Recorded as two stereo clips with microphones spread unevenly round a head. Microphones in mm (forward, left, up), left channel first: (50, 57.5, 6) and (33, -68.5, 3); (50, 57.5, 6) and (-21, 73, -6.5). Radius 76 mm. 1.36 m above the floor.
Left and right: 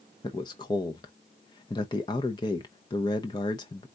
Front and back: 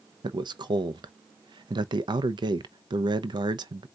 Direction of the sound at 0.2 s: 145° left.